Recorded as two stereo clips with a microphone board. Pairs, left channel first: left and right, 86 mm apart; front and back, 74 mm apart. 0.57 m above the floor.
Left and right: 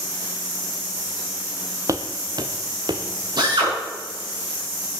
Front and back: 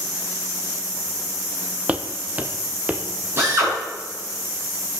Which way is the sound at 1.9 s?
115° right.